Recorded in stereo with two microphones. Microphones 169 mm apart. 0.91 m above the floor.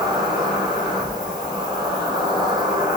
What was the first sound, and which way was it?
An insect, 25° right (ahead or behind).